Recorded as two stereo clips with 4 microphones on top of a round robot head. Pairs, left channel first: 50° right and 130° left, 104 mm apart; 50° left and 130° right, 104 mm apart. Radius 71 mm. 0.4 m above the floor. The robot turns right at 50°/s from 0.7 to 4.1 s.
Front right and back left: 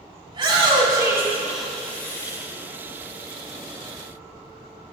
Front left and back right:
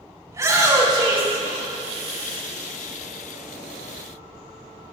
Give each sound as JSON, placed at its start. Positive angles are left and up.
{"t": 0.3, "sound": "a shout", "azimuth_deg": 170, "distance_m": 4.5}